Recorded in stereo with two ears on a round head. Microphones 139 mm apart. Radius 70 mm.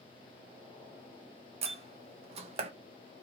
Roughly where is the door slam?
Right.